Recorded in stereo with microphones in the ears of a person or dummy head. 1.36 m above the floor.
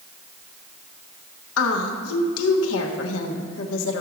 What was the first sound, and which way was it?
A woman speaking, 80° left.